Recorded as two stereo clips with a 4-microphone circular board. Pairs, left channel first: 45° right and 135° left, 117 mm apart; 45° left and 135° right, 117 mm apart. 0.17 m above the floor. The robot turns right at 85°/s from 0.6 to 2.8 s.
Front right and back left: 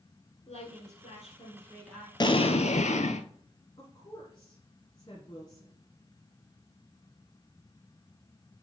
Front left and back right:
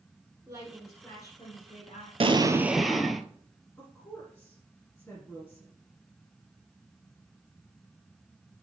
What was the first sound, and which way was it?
A woman speaking, 75° right.